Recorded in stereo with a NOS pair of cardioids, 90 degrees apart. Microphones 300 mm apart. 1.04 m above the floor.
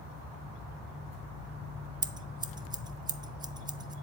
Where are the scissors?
15° right, 0.5 m.